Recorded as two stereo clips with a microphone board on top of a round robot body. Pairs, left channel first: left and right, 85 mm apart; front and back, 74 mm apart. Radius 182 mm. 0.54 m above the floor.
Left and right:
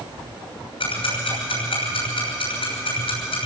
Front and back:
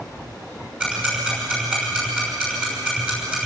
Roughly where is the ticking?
Left.